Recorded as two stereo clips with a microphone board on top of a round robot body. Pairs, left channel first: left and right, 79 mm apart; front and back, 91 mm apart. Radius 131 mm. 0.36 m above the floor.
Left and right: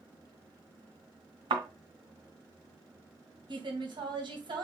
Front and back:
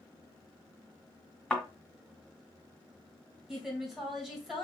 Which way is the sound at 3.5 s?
95° right.